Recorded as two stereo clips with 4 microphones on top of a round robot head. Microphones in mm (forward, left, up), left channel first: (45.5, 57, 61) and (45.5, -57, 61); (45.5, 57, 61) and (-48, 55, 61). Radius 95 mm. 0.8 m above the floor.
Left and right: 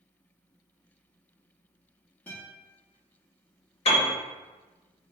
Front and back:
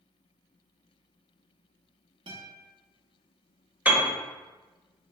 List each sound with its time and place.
2.3 s a guitar: 165° left, 0.9 m
3.9 s a piano: 110° left, 1.0 m